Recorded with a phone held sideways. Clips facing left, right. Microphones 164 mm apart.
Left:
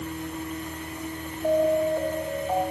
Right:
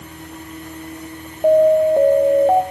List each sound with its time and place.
1.4 s an alarm: 70° right (ahead or behind), 0.5 m